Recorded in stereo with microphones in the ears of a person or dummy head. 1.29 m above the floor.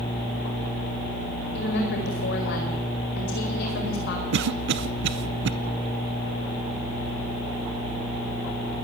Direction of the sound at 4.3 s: 55° right (ahead or behind).